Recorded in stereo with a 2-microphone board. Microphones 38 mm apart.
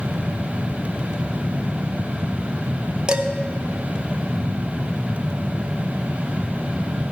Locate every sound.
3.1 s dishes clattering: 25° right (ahead or behind), 0.8 m